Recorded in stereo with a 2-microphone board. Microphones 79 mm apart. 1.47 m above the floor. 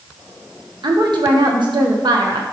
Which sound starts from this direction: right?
A woman speaking, at 0.8 s.